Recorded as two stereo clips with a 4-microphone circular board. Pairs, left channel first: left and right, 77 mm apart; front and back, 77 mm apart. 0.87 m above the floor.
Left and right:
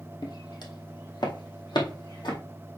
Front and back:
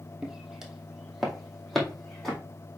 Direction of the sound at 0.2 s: 100° left.